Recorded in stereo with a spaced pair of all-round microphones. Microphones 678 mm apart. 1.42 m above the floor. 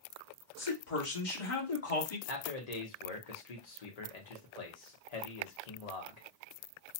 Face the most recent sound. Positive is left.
turn(degrees=65)  # may be behind; listen again after turning